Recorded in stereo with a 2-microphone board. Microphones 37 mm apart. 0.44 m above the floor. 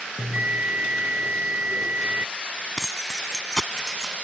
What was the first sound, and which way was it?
A bell, 40° right (ahead or behind).